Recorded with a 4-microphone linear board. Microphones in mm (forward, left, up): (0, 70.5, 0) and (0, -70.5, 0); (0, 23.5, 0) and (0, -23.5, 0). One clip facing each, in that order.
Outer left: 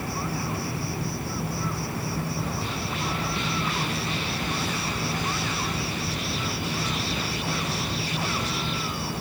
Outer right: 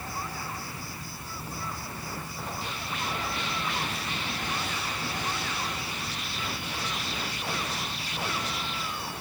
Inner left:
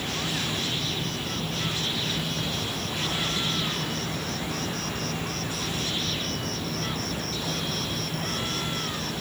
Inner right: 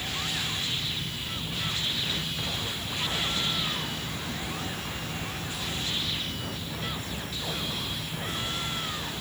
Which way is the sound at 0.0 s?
70° left (ahead or behind).